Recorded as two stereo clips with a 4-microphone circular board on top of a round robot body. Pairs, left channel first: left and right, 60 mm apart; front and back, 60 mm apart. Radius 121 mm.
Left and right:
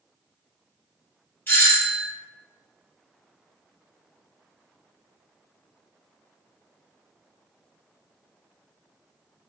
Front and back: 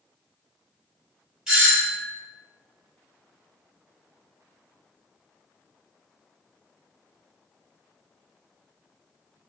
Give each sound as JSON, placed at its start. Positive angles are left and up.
{"t": 1.5, "sound": "a doorbell", "azimuth_deg": 105, "distance_m": 1.7}